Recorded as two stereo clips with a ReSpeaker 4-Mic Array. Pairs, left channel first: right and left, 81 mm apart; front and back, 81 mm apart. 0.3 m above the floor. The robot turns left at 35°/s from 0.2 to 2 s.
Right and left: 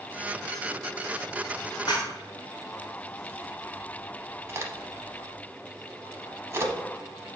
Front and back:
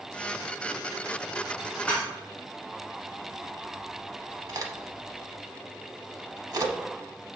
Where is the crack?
145° left, 0.7 m.